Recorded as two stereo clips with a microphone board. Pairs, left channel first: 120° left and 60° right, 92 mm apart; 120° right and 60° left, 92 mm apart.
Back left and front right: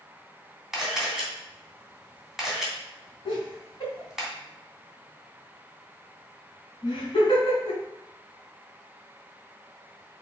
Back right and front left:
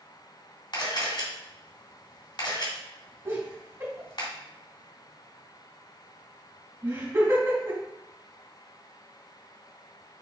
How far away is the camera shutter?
About 3 m.